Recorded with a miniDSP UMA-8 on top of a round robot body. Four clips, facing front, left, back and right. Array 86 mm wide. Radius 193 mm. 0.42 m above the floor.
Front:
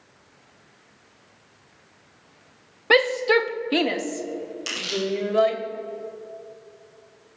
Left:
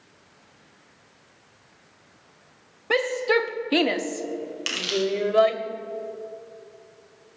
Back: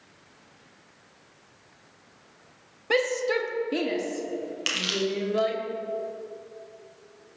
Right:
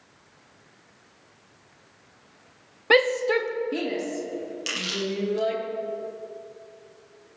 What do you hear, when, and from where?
2.9 s a shout: 35° right, 0.9 m; by 5.6 s 80° left, 2.5 m
4.7 s crushing: 150° left, 4 m